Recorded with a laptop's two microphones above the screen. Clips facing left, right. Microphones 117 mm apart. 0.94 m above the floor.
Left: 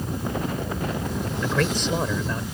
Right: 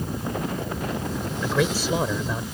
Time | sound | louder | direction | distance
1.4 | a man speaking | right 1 dB | 10° right (ahead or behind) | ?